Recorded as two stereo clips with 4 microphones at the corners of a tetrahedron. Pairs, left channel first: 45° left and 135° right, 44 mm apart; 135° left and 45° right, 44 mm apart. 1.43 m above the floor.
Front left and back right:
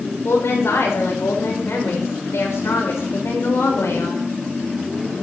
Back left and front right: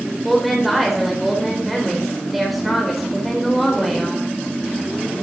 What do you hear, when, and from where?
0.2 s a woman speaking: 40° left, 4.5 m